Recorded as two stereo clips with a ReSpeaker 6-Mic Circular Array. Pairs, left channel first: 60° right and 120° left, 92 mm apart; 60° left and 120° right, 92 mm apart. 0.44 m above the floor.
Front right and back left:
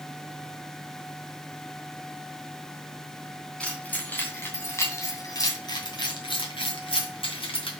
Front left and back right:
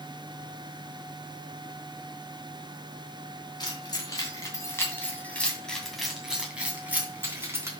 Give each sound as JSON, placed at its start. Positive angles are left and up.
{"t": 3.6, "sound": "keys jangling", "azimuth_deg": 15, "distance_m": 3.0}